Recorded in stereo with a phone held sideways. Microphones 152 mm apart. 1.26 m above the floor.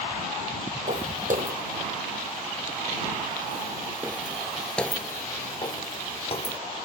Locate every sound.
0.9 s footsteps: 60° right (ahead or behind); by 6.6 s 45° left (ahead or behind)